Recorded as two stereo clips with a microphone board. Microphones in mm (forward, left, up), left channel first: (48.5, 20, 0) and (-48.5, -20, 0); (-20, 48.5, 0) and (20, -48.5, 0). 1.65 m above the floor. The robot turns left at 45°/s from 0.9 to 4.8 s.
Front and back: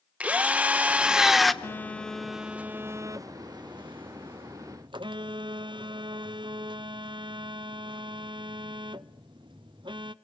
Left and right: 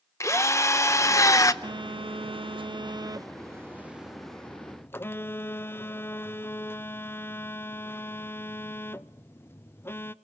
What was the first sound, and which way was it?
A drill, 140° left.